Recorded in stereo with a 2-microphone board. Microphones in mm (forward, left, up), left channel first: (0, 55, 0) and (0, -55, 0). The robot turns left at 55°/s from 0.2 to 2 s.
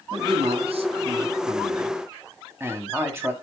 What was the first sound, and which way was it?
A man speaking, 55° right.